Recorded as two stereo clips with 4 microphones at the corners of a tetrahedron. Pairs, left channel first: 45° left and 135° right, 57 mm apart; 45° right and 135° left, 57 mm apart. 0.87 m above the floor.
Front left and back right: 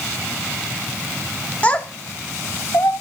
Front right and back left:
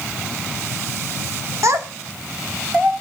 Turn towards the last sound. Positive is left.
turn(degrees=80)